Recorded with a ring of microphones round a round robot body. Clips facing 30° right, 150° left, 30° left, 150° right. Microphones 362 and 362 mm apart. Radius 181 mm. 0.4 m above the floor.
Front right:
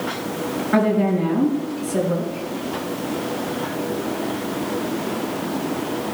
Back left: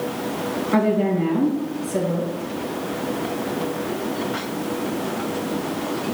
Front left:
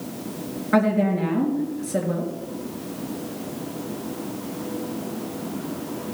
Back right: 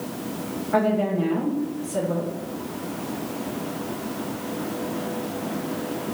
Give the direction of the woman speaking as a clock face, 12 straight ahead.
10 o'clock.